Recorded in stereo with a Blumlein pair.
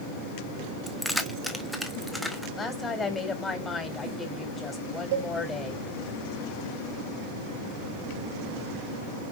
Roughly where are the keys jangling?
Ahead.